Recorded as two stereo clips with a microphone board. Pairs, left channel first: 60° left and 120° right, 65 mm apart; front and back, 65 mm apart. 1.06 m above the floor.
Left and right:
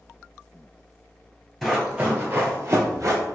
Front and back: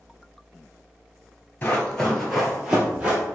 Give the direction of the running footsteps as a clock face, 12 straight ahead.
1 o'clock.